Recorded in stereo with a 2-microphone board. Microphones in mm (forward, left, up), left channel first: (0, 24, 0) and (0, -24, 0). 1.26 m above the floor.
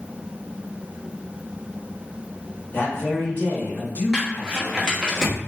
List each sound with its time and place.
2.7 s a man speaking: 40° left (ahead or behind), 1.2 m
4.1 s crumpling: 15° right (ahead or behind), 0.8 m